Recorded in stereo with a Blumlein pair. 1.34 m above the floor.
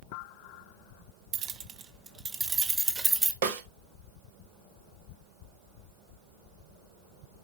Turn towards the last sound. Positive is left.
turn(degrees=-55)